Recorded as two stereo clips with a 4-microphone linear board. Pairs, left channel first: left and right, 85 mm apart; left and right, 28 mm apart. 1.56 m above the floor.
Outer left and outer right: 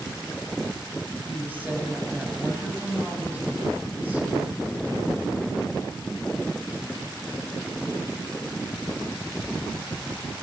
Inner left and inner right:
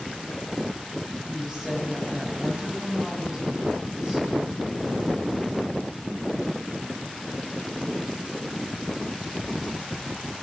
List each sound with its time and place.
1.3 s a woman speaking: 20° right (ahead or behind), 8.5 m